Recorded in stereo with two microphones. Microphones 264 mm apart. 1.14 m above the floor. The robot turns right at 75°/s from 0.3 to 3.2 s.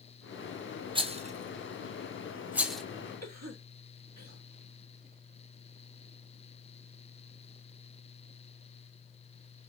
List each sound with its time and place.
0.9 s a rattle: 20° right (ahead or behind), 0.5 m; by 2.8 s 5° left (ahead or behind), 0.5 m
3.2 s a cough: 75° right (ahead or behind), 1.6 m